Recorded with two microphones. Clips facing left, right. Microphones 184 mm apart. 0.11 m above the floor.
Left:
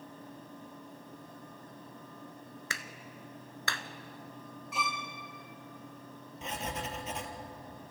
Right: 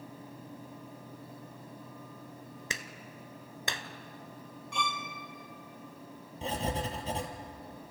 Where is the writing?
30° right (ahead or behind), 2 m.